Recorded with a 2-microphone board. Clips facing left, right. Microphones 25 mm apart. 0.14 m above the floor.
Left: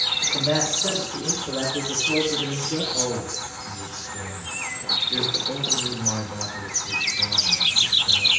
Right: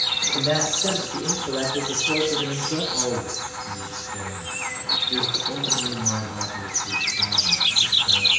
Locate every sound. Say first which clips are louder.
0.3 s a man speaking: even; 45° right (ahead or behind), 2.5 m; by 2.8 s 60° right (ahead or behind), 3 m
2.9 s a man speaking: right 1 dB; 35° right (ahead or behind), 1.8 m